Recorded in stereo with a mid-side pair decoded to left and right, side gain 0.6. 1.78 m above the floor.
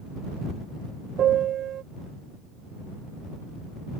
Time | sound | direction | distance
1.2 | a piano | 50° right | ?